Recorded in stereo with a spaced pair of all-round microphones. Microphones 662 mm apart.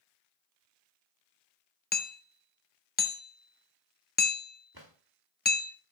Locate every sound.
1.9 s hammering: 15° left (ahead or behind), 0.6 m
4.7 s a drawer: 35° right (ahead or behind), 1.6 m